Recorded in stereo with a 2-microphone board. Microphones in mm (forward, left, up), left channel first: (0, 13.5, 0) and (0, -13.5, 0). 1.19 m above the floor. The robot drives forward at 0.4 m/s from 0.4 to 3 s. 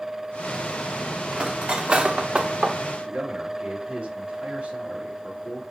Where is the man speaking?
50° right (ahead or behind), 3 m.